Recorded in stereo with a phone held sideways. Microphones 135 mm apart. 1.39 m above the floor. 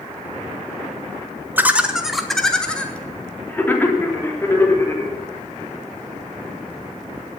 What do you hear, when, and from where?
1.6 s laughter: 15° right (ahead or behind), 1.5 m; by 5.1 s 20° left (ahead or behind), 5 m